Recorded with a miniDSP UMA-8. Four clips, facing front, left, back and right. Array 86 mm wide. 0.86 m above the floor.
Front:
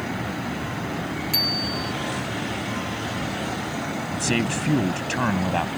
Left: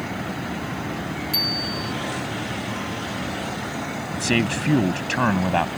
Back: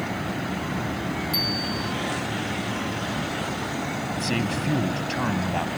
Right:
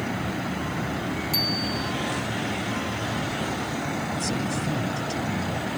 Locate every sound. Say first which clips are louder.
1.3 s a bicycle bell: even, even; 5° left
4.1 s a man speaking: left 4 dB, front 3 dB; 75° left